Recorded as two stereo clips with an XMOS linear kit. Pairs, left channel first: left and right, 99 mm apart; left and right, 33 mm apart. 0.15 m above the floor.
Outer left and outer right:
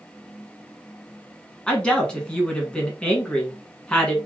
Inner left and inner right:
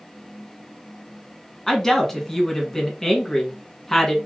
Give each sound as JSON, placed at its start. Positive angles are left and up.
{"t": 1.7, "sound": "a woman speaking", "side_deg": 10, "distance_m": 1.2}